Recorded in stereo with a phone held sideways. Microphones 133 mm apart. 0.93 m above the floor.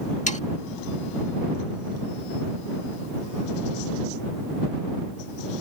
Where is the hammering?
I don't hear hammering.